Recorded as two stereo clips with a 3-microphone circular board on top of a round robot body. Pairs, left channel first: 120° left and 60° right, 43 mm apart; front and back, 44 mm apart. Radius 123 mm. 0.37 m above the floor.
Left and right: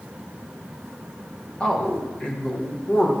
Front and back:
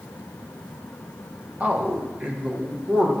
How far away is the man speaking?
About 1.2 m.